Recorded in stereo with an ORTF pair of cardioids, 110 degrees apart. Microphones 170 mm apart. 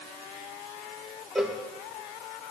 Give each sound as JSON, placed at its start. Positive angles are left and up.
{"t": 1.4, "sound": "a cowbell", "azimuth_deg": 0, "distance_m": 1.2}